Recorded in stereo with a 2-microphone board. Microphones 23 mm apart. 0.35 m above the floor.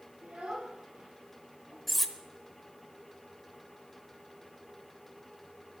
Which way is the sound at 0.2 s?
75° right (ahead or behind).